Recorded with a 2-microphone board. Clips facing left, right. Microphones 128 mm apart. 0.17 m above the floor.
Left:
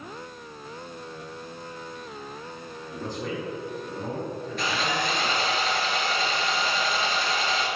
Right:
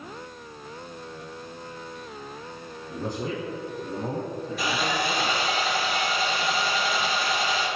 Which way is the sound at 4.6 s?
10° right (ahead or behind).